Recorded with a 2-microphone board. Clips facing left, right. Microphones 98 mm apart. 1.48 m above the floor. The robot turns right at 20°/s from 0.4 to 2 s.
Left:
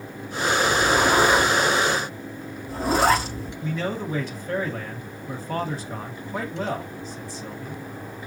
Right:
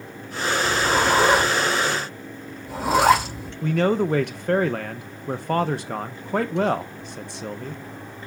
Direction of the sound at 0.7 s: 45° right (ahead or behind).